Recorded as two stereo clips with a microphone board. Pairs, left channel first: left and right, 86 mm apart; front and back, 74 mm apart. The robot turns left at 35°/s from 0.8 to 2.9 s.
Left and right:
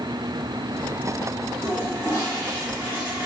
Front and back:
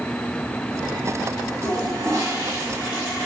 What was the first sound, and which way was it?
A toilet flushing, 160° left.